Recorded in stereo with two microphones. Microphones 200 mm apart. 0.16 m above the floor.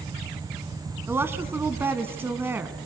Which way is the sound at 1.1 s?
10° right (ahead or behind).